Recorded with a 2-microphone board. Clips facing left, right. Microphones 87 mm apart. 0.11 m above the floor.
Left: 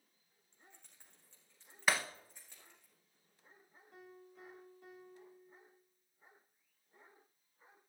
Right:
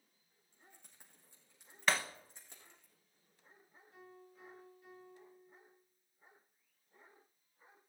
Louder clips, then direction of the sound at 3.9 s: Left 1 dB; 80° left.